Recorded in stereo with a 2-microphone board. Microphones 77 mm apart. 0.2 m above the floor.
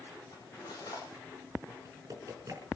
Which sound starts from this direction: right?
Typing on a keyboard, at 1.7 s.